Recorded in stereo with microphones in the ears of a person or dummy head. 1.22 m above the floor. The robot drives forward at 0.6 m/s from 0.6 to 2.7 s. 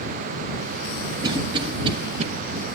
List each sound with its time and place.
1.2 s a cough: 20° right (ahead or behind), 1.4 m; by 2.2 s 35° right (ahead or behind), 0.9 m